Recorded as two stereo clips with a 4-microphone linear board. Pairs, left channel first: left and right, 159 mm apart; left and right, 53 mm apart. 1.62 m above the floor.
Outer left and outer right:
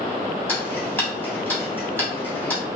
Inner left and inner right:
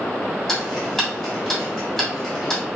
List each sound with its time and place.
0.5 s ticking: 10° left (ahead or behind), 2 m